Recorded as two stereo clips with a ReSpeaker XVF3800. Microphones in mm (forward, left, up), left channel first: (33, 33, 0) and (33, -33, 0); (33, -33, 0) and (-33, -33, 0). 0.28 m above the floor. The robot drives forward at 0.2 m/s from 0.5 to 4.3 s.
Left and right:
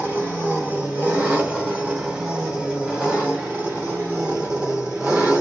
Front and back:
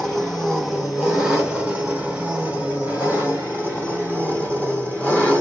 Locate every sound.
0.0 s an engine running: 95° right, 1.3 m; by 5.4 s 155° right, 1.5 m